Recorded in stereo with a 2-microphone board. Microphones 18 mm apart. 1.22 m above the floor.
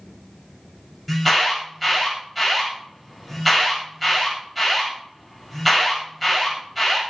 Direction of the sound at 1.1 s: 5° left (ahead or behind).